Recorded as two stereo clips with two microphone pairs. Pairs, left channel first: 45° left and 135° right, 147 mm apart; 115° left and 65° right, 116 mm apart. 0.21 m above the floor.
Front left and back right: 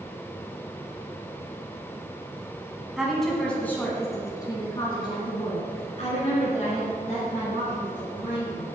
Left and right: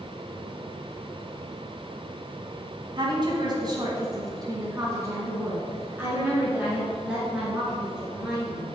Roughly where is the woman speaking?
Ahead right.